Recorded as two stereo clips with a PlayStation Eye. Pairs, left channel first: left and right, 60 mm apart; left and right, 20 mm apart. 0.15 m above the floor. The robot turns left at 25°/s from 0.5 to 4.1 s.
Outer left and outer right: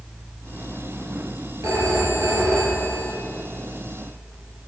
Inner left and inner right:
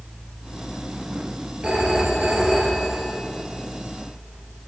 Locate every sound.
1.6 s a phone ringing: 85° right, 2.5 m; by 3.1 s 125° right, 2.5 m